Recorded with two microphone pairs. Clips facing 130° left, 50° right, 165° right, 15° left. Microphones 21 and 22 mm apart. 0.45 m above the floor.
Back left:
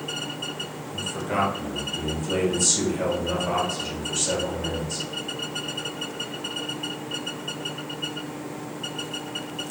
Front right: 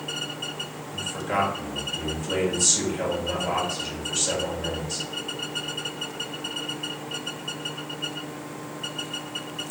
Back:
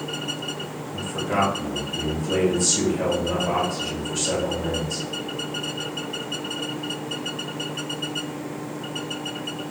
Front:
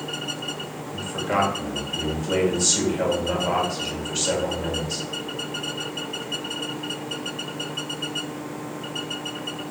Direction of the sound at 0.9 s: 20° left.